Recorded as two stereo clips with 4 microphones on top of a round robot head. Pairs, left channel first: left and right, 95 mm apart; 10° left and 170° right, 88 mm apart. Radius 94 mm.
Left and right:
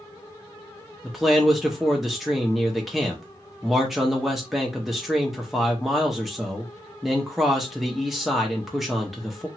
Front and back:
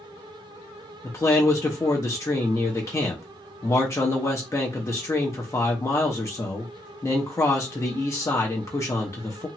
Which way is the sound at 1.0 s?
5° right.